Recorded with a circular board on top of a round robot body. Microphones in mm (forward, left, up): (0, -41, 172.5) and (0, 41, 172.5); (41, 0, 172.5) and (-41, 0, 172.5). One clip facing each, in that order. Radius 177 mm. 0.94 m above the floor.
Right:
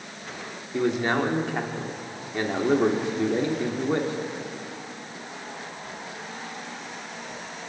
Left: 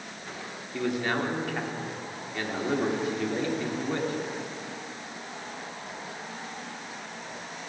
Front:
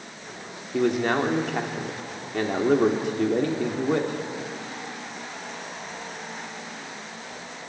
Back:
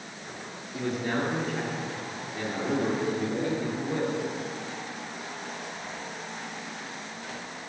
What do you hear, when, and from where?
0.7 s a man speaking: 25° right, 3 m